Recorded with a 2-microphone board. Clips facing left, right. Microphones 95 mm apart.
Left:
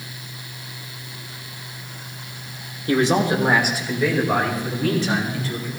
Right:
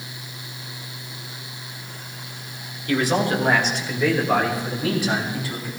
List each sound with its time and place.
2.9 s a man speaking: 30° left (ahead or behind), 1.6 m; by 5.7 s 15° right (ahead or behind), 4.5 m